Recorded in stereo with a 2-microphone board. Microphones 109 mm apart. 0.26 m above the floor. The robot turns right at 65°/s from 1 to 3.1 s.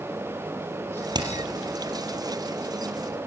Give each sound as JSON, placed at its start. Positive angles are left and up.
{"t": 1.1, "sound": "hammering", "side_deg": -40, "distance_m": 4.0}